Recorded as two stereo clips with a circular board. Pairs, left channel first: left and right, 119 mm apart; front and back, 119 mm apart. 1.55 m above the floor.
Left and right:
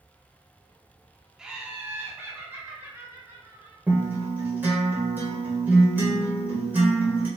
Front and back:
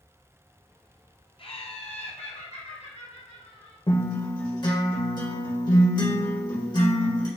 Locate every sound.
1.4 s laughter: 5° right, 0.7 m; by 3.8 s 25° right, 2 m
3.9 s a guitar: 25° right, 1.6 m